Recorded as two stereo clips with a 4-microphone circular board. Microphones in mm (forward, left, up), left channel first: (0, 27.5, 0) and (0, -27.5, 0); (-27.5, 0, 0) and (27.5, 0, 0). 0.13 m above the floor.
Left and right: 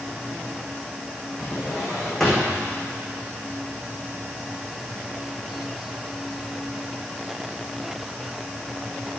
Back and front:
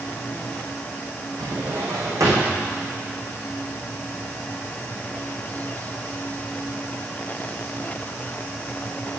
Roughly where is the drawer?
Ahead.